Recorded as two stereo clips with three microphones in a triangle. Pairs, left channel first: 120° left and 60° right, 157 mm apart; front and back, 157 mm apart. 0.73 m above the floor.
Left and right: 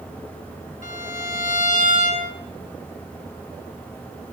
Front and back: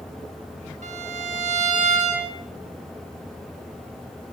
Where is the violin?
150° left, 4 m.